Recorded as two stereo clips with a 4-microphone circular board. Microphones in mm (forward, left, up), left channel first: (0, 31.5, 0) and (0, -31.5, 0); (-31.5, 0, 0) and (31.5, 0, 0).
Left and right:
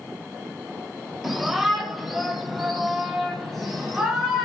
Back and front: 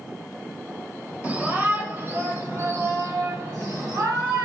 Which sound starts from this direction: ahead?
A shout, at 1.2 s.